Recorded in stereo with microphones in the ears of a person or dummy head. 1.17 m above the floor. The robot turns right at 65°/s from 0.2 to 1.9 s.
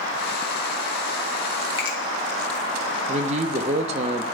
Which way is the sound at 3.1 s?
35° right (ahead or behind).